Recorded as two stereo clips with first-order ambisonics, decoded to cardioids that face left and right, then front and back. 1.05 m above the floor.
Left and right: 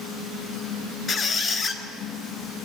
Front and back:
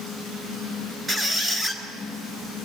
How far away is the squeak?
About 1.1 m.